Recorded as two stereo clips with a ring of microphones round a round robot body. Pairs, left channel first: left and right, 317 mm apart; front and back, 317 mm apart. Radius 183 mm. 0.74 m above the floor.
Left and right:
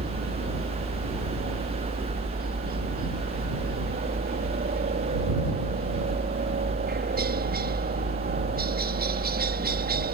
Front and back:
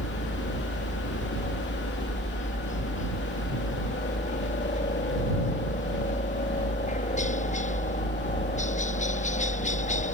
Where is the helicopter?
50° right.